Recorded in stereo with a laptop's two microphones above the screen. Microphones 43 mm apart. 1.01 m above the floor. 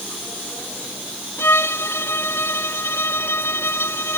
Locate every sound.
1.4 s a violin: 90° left